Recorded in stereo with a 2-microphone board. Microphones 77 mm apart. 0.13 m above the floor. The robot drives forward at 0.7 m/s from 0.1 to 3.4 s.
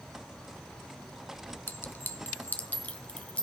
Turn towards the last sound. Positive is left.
turn(degrees=15)  # may be behind; listen again after turning